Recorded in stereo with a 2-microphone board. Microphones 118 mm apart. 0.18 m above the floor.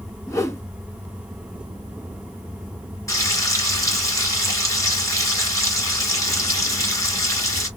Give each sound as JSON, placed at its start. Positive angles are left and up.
{"t": 0.3, "sound": "a whoosh", "side_deg": 25, "distance_m": 0.7}
{"t": 3.1, "sound": "frying", "side_deg": 30, "distance_m": 3.0}